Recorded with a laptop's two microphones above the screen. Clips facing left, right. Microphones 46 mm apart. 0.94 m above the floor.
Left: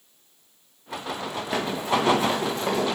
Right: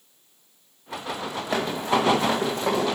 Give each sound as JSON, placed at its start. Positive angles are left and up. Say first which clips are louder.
{"t": 1.5, "sound": "running footsteps", "louder": "right 1 dB", "side_deg": -65, "distance_m": 3.0}